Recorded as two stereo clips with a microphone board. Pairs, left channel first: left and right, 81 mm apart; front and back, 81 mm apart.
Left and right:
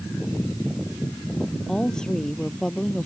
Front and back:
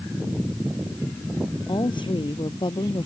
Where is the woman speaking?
10° left.